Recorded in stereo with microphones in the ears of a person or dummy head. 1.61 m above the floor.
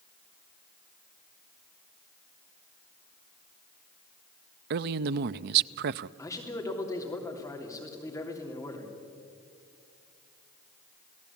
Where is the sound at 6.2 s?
15° left (ahead or behind), 3.5 m.